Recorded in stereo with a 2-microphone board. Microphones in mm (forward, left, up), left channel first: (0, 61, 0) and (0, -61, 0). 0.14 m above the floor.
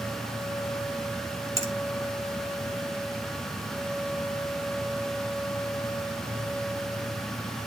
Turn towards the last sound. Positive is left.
turn(degrees=-30)  # may be behind; listen again after turning